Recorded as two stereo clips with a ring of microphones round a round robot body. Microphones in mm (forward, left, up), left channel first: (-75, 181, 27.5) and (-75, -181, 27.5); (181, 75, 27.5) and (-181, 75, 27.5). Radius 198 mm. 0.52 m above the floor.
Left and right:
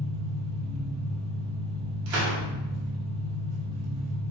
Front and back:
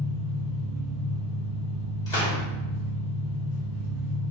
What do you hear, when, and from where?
0.0 s an engine running: 100° right, 1.0 m
2.1 s a gunshot: 75° right, 1.1 m